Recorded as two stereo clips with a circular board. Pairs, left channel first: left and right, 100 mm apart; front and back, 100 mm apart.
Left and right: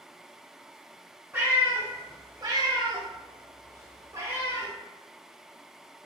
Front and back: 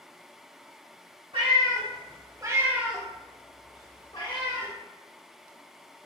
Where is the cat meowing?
160° right, 1.0 m; by 4.7 s 25° right, 1.0 m.